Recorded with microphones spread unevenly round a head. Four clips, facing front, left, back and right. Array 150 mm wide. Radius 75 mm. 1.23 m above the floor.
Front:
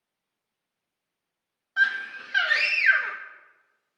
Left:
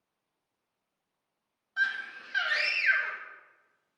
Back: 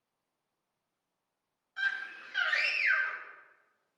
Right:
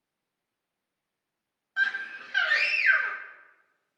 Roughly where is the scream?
Ahead.